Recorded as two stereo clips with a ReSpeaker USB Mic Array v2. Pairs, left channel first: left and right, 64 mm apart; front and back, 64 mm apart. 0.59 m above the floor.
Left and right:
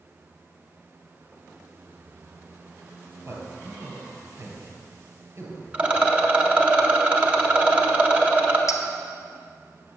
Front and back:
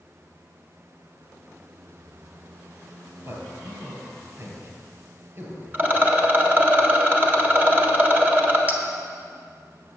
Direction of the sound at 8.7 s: 120° left.